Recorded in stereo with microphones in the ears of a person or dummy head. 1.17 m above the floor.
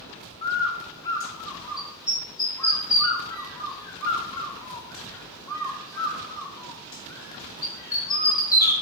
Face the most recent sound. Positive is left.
turn(degrees=15)  # may be behind; listen again after turning